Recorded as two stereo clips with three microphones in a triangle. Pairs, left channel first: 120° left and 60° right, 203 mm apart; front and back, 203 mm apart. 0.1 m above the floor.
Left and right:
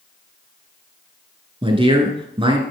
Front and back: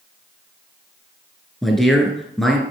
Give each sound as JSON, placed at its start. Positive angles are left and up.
{"t": 1.6, "sound": "a man speaking", "azimuth_deg": -85, "distance_m": 1.2}